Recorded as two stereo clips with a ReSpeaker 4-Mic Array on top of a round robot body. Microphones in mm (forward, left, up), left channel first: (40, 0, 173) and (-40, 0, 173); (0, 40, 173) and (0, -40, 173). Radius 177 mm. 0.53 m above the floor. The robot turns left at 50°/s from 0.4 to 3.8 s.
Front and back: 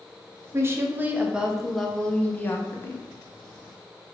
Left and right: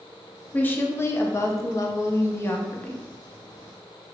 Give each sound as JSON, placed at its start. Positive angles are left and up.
{"t": 0.5, "sound": "a woman speaking", "azimuth_deg": 150, "distance_m": 0.9}